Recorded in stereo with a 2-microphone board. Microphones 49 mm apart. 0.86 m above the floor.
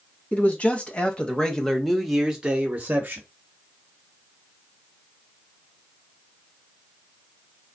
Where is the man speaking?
35° left (ahead or behind), 1.4 m; by 3.2 s 40° right (ahead or behind), 0.9 m.